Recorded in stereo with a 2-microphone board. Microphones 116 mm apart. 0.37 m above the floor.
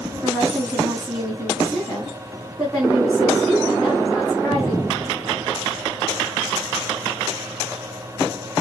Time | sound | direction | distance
0.2 | a woman speaking | 5° left (ahead or behind) | 3 m